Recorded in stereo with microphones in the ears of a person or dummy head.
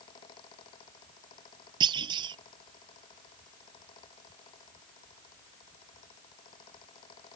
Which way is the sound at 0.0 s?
30° left (ahead or behind).